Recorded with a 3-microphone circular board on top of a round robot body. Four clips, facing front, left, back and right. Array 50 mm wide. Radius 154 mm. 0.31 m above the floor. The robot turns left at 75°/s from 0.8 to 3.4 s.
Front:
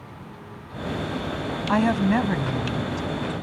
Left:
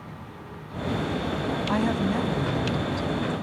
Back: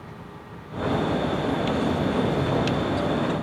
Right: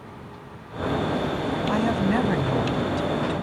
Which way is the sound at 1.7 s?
5° left.